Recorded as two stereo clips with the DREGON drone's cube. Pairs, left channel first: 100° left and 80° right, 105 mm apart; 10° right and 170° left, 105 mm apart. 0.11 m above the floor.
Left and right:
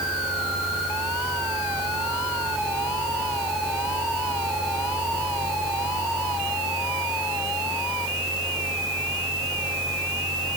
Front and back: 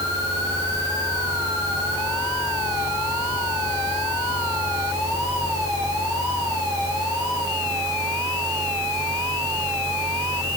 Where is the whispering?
I don't hear whispering.